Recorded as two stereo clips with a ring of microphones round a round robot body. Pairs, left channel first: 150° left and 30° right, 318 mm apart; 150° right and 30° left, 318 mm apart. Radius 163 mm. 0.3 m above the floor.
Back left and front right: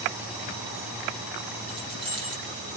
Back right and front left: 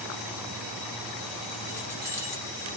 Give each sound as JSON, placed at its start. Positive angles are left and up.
{"t": 1.7, "sound": "keys jangling", "azimuth_deg": -50, "distance_m": 7.5}